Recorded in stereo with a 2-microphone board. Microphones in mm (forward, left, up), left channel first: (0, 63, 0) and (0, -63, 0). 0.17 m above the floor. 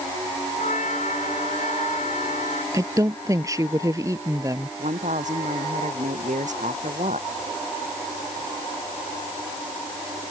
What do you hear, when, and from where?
0.6 s a trumpet: 75° left (ahead or behind)
2.7 s a woman speaking: 25° right (ahead or behind)
4.8 s a woman speaking: 75° right (ahead or behind)